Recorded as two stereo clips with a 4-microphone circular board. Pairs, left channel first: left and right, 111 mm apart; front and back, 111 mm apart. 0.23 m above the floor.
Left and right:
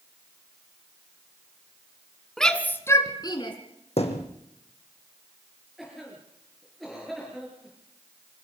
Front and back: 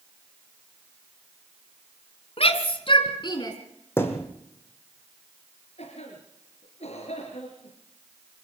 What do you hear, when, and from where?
2.4 s a shout: 5° left, 2 m; by 3.5 s 50° left, 2.5 m
4.0 s a thud: 70° left, 3 m
5.8 s a cough: straight ahead, 4.5 m